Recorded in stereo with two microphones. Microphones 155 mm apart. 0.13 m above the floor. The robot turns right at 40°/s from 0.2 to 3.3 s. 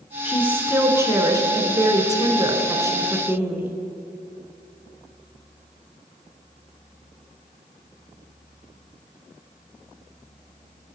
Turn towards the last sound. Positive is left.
turn(degrees=-15)  # may be behind; listen again after turning